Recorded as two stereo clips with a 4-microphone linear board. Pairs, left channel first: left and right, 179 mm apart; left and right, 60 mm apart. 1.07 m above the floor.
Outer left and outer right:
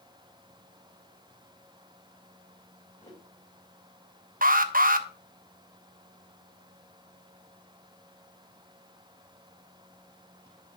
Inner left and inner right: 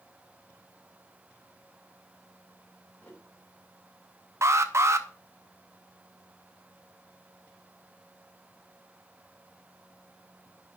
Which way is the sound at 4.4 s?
50° right (ahead or behind).